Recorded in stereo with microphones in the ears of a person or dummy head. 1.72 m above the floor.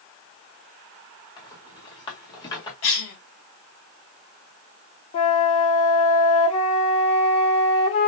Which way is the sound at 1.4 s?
25° left (ahead or behind).